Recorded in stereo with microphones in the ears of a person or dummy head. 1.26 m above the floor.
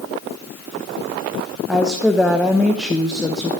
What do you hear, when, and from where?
1.7 s a woman speaking: 5° right (ahead or behind), 1.0 m